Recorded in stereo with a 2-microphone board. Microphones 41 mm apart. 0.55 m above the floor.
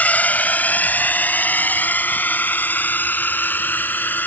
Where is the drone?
45° left (ahead or behind); by 4.3 s 55° left (ahead or behind).